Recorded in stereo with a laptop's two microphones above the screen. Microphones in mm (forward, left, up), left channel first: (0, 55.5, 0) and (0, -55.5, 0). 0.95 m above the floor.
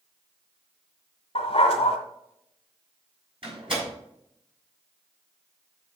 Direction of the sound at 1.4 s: 60° left (ahead or behind).